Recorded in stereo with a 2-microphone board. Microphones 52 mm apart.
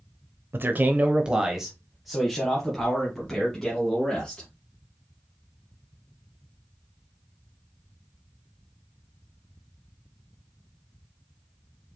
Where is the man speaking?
45° right (ahead or behind), 0.6 m; by 4.5 s 15° left (ahead or behind), 2 m.